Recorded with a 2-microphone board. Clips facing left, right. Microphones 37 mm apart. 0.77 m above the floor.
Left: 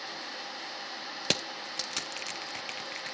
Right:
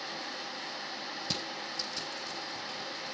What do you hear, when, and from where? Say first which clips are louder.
1.2 s crushing: left 7 dB; 65° left (ahead or behind), 0.6 m